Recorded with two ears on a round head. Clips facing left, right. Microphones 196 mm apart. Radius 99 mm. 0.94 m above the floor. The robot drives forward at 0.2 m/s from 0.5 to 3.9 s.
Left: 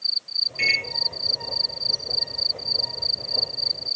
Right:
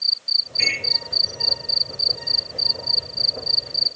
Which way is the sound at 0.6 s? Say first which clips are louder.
Right 1 dB; 75° left (ahead or behind).